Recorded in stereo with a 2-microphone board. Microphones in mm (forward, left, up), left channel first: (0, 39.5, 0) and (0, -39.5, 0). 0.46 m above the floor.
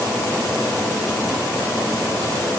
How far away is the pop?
No pop in this recording.